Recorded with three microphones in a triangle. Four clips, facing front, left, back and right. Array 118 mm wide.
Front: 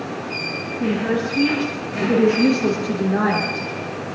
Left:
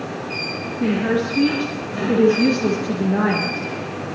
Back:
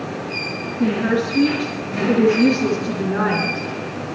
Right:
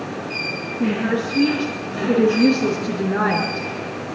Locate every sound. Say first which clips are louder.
0.8 s a woman speaking: left 1 dB, back 2 dB; 140° right, 7 m; by 3.7 s 110° right, 8 m